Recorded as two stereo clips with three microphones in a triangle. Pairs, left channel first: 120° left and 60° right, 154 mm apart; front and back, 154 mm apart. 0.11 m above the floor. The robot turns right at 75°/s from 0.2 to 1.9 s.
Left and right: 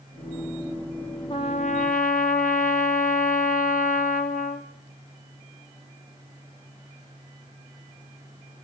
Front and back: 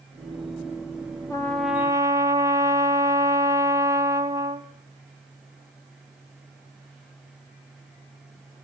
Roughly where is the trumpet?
Ahead left.